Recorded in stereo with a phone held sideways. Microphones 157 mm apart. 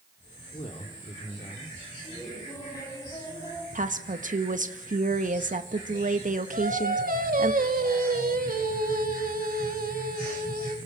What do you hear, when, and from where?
0.5 s a man speaking: 45° left (ahead or behind), 2.5 m; by 1.8 s 50° left (ahead or behind), 3 m
2.0 s laughter: 25° left (ahead or behind), 7 m
3.8 s a woman speaking: 60° right (ahead or behind), 1.7 m
6.5 s singing: 75° right (ahead or behind), 2.5 m